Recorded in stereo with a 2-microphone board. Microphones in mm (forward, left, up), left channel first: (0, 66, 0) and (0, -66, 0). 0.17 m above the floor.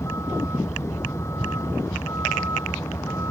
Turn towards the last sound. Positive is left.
turn(degrees=20)  # may be behind; listen again after turning